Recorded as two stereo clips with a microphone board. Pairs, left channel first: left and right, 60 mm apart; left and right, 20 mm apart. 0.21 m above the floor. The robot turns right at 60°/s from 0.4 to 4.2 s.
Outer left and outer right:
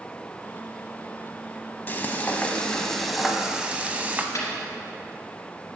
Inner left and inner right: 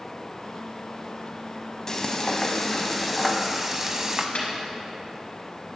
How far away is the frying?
About 0.7 m.